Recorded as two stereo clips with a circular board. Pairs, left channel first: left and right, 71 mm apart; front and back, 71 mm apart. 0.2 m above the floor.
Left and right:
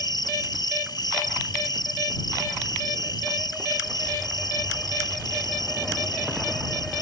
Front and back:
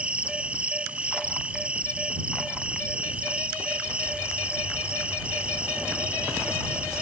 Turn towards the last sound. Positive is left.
turn(degrees=105)